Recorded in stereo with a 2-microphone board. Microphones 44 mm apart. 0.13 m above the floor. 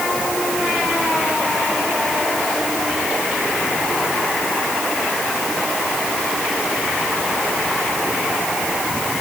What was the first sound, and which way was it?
Only background noise.